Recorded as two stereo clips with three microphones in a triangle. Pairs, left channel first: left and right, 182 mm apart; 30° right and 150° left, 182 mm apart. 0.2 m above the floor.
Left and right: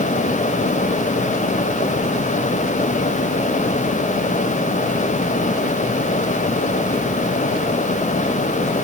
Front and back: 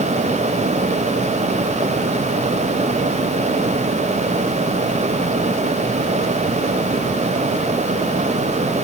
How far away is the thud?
I don't hear a thud.